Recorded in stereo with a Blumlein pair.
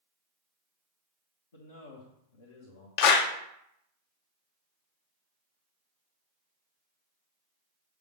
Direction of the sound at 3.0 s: 45° left.